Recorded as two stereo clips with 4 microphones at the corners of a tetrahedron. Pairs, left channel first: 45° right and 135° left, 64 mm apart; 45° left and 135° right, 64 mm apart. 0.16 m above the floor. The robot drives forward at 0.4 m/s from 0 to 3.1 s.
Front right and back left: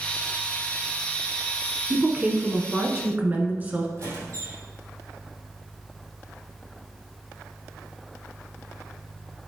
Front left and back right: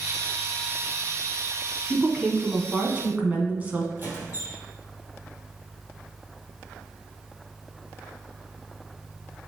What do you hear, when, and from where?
1.9 s a woman speaking: 170° left, 1.2 m; by 3.9 s 175° left, 1.4 m
4.0 s a squeak: 165° left, 3 m